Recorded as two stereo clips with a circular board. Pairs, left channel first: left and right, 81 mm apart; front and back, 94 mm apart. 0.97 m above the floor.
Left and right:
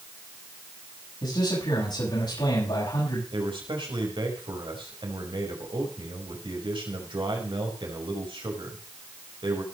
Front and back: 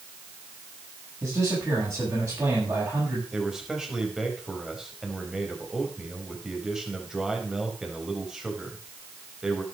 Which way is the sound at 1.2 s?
110° left.